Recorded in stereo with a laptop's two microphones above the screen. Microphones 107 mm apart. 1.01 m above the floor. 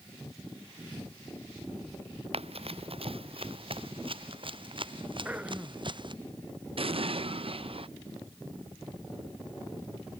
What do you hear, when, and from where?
2.3 s running footsteps: 65° right (ahead or behind); by 6.1 s 45° right (ahead or behind)
5.2 s throat clearing: 15° right (ahead or behind)
6.8 s an explosion: 60° right (ahead or behind)